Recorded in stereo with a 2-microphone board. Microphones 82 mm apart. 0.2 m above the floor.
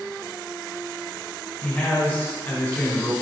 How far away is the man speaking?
About 1.0 m.